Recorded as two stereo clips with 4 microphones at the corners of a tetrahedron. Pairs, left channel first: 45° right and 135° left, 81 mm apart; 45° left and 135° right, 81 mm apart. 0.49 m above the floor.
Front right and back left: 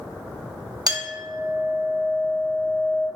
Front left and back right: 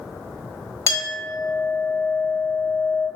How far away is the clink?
About 1.2 m.